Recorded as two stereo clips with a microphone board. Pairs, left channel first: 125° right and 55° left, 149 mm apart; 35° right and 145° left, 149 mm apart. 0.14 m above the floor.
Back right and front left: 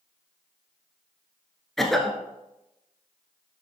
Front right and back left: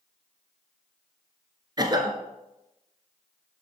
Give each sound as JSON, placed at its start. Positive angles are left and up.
{"t": 1.8, "sound": "a cough", "azimuth_deg": 150, "distance_m": 1.1}